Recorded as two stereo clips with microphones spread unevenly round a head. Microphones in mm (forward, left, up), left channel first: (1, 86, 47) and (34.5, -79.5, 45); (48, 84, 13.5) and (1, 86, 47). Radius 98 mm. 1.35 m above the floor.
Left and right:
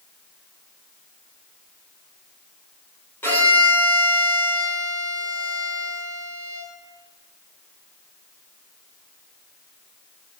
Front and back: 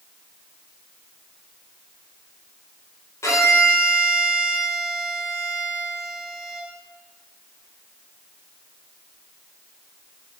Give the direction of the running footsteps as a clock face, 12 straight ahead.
I don't hear running footsteps.